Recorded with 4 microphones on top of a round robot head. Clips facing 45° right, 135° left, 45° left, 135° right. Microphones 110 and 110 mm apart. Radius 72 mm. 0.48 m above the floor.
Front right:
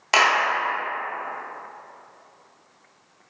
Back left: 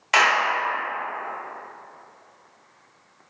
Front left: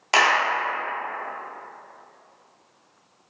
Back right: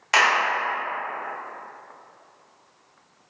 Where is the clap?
5° right, 1.1 m.